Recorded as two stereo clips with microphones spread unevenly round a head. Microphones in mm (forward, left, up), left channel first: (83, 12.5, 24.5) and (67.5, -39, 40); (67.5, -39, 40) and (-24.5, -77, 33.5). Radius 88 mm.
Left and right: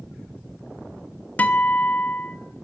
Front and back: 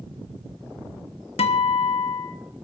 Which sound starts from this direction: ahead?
A guitar, at 1.4 s.